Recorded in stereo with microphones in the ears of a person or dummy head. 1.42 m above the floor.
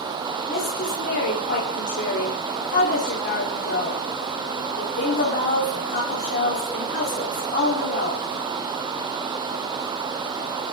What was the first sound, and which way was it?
A woman speaking, 55° left (ahead or behind).